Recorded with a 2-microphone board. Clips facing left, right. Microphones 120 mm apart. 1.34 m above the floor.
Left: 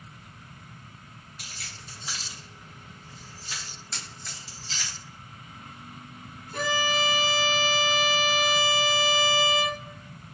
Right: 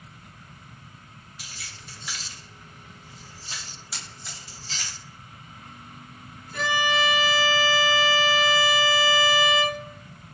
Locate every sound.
1.4 s keys jangling: 55° left (ahead or behind), 1.1 m; by 4.9 s 55° right (ahead or behind), 1.7 m
3.9 s a camera shutter: 10° right (ahead or behind), 1.0 m
6.5 s a violin: 40° left (ahead or behind), 1.1 m